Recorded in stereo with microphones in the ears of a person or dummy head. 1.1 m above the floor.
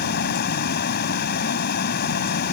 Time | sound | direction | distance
0.0 | a fan | 60° left (ahead or behind) | ?